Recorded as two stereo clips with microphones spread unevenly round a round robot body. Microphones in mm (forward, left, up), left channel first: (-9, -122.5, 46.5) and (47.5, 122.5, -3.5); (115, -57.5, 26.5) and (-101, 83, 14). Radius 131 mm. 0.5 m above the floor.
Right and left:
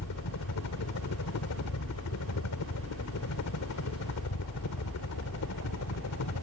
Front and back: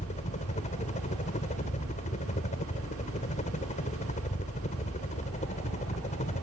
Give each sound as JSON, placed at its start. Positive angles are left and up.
{"t": 0.0, "sound": "a helicopter", "azimuth_deg": -90}